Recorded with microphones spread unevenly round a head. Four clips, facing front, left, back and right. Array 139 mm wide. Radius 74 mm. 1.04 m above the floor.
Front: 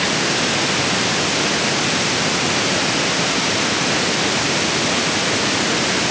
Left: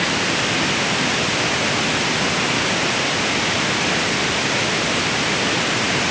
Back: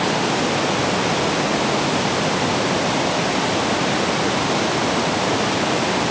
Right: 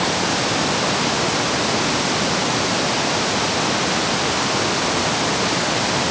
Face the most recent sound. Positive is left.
No sound to turn to.